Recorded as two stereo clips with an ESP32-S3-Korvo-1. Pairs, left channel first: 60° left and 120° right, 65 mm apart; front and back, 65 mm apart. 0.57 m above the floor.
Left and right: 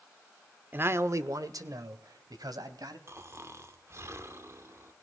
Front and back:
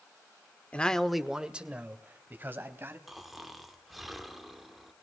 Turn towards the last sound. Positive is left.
turn(degrees=-90)